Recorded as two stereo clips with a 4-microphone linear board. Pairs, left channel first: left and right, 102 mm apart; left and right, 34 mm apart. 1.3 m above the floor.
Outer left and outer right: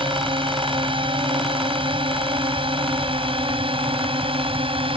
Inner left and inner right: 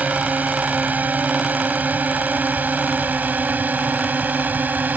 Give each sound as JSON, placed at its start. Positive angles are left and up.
{"t": 0.0, "sound": "a drone", "side_deg": -55}